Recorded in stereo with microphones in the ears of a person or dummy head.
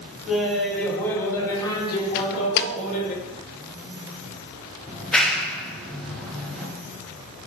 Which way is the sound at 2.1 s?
55° left (ahead or behind).